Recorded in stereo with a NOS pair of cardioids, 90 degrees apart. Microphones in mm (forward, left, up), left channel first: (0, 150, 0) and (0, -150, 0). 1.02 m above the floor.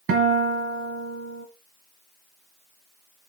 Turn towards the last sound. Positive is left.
turn(degrees=-50)